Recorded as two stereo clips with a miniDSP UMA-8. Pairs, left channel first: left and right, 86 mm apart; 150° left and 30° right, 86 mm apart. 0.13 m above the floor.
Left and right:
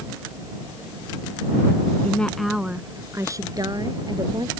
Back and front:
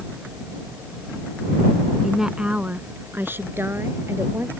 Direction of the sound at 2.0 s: 50° left.